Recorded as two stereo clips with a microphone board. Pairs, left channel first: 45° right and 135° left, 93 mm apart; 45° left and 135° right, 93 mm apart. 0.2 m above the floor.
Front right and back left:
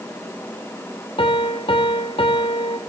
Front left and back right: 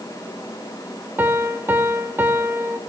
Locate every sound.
1.2 s a piano: 65° right, 1.5 m